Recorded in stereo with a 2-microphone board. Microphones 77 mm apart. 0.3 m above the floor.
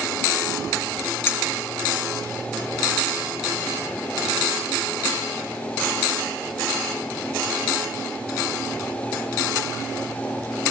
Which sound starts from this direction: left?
A clink, at 1.3 s.